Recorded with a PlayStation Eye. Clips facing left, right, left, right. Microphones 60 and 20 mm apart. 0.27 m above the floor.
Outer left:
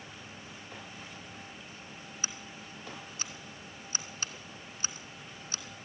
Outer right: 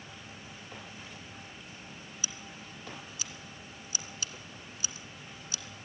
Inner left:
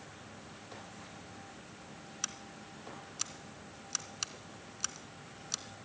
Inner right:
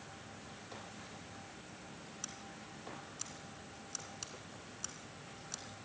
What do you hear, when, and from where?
2.2 s scissors: 40° left (ahead or behind), 1.7 m